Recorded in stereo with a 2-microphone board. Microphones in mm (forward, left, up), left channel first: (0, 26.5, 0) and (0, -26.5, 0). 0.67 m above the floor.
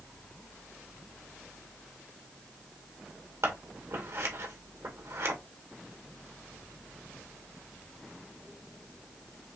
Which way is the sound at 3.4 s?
70° right (ahead or behind).